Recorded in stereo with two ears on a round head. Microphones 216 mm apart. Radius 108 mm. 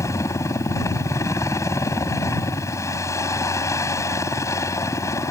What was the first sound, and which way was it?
A helicopter, 15° left (ahead or behind).